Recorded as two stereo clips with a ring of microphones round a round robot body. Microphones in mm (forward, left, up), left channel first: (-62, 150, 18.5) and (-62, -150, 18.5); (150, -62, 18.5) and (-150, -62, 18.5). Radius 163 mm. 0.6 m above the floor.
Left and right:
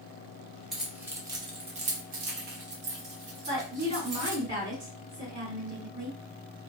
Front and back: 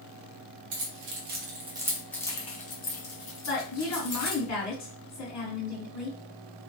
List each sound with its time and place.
0.7 s keys jangling: straight behind, 0.9 m; by 4.4 s 35° right, 1.5 m
3.5 s a woman speaking: 25° right, 1.9 m